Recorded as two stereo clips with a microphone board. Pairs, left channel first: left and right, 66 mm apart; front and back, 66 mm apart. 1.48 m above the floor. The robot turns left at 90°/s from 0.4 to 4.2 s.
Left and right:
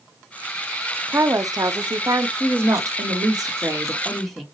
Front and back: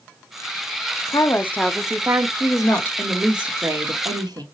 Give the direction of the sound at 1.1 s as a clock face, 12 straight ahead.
1 o'clock.